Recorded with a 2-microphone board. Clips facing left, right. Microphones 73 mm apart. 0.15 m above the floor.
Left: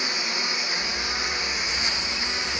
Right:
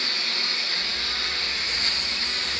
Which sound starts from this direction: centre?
A lawn mower, at 0.0 s.